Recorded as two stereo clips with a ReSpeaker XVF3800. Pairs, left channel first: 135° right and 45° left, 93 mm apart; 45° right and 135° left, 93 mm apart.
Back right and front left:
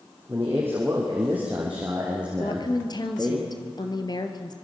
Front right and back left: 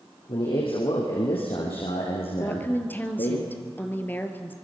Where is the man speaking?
20° right, 5 m; by 3.4 s 45° right, 5 m.